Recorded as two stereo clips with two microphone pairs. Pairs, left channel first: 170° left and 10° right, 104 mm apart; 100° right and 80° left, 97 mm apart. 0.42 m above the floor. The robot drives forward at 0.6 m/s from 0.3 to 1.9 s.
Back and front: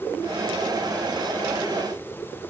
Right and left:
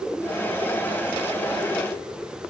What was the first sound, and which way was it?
Only background noise.